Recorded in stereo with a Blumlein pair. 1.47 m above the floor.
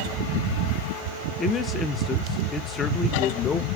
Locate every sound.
1.4 s a man speaking: 20° left, 1.0 m